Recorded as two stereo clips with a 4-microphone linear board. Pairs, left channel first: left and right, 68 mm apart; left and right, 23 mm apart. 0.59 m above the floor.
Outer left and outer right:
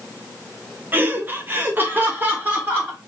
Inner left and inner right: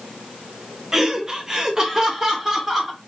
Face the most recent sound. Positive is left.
turn(degrees=-25)  # may be behind; listen again after turning